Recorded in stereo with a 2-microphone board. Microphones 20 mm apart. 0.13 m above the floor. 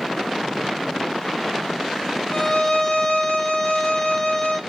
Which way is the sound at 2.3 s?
30° left (ahead or behind).